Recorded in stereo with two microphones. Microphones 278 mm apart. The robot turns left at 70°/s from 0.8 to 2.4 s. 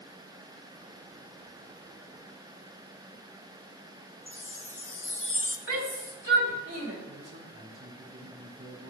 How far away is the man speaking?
About 2 m.